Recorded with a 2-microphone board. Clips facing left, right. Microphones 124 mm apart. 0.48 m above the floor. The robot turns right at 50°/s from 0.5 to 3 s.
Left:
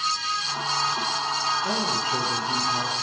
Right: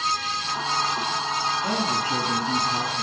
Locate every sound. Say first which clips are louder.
1.6 s a man speaking: right 1 dB; 135° right, 5 m; by 3.0 s 65° right, 5 m